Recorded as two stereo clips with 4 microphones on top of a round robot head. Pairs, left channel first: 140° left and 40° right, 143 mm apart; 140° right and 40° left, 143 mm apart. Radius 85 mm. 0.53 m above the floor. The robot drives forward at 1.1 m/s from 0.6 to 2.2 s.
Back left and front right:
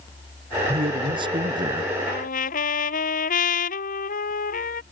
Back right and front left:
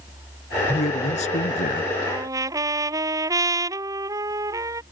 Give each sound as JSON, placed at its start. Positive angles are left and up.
{"t": 0.7, "sound": "a man speaking", "azimuth_deg": -95}
{"t": 2.1, "sound": "a trumpet", "azimuth_deg": 110}